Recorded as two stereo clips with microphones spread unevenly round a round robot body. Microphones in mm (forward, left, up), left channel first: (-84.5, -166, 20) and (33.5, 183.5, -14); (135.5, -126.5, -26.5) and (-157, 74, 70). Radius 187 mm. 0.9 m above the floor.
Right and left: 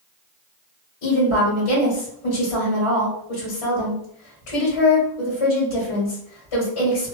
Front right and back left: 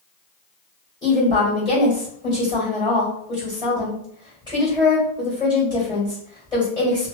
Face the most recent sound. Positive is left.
turn(degrees=-105)